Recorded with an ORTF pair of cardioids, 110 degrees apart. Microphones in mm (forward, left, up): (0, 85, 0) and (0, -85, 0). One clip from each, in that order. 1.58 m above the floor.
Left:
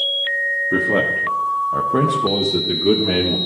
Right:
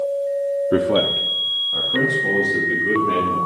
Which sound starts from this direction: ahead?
A man speaking, at 0.7 s.